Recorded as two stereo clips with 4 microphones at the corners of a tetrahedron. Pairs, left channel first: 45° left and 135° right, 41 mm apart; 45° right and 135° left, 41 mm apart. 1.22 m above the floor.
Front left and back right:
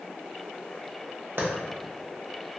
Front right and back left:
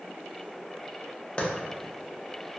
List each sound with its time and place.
1.4 s a clap: 110° right, 0.6 m